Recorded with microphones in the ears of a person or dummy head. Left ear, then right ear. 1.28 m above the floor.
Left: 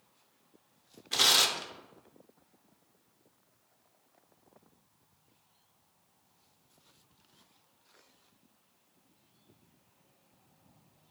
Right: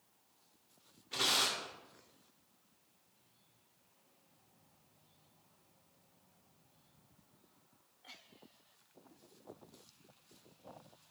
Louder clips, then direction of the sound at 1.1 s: Left 8 dB; 40° left (ahead or behind).